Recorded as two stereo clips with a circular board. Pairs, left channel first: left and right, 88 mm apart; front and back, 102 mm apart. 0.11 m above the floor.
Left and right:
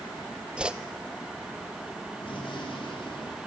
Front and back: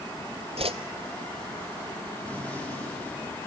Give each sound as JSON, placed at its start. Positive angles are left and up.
{"t": 0.6, "sound": "a whoosh", "azimuth_deg": -170, "distance_m": 0.8}
{"t": 2.2, "sound": "a gunshot", "azimuth_deg": 75, "distance_m": 9.0}